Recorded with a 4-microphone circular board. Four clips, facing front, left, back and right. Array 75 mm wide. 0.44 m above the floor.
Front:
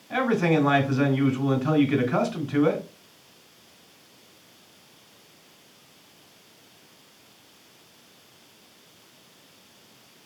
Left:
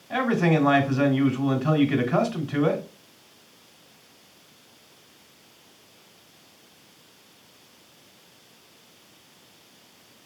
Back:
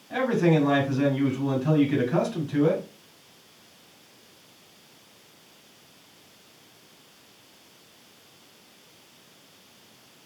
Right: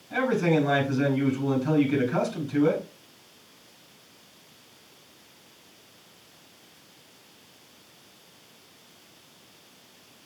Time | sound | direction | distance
0.1 | a man speaking | 90° left | 2 m